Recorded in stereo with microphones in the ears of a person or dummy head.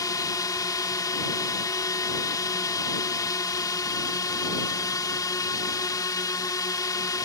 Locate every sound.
0.0 s a drone: 15° left (ahead or behind)